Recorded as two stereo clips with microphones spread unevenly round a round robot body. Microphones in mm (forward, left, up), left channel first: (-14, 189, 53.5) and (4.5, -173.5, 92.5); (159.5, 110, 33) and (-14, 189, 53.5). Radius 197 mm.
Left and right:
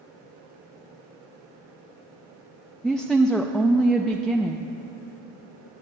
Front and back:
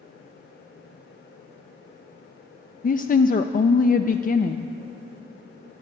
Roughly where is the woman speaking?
Ahead.